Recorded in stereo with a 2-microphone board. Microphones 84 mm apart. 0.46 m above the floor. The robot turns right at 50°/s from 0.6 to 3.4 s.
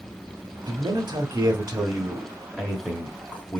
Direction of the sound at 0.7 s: 110° right.